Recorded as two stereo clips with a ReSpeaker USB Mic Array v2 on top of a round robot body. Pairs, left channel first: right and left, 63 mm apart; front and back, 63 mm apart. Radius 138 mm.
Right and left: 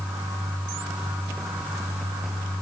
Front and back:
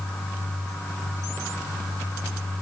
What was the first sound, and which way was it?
Only background noise.